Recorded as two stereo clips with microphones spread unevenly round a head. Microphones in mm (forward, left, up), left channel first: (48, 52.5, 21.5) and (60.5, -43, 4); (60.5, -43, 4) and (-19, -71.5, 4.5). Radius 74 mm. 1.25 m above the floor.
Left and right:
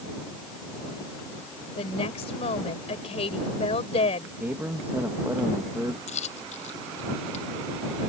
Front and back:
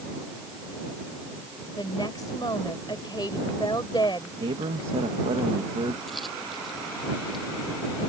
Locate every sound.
1.8 s a woman speaking: 85° left
4.4 s a man speaking: 160° right
6.1 s a dropped coin: 110° left